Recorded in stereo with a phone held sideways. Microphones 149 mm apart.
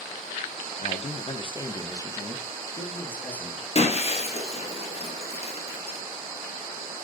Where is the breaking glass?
45° left (ahead or behind), 1.8 m.